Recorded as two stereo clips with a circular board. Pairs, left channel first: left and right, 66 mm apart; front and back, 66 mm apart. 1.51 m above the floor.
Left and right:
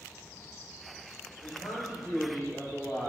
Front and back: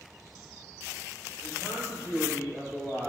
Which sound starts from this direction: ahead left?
A man speaking, at 1.4 s.